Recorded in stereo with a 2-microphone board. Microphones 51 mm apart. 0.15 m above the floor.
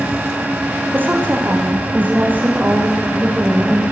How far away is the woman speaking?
About 10 m.